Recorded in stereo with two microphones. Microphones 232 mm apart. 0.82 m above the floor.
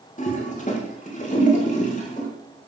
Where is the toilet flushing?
35° left (ahead or behind), 5.5 m.